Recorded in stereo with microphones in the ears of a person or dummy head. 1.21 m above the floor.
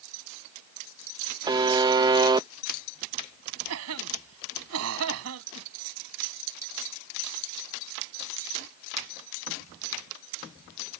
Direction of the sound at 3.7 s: 80° right.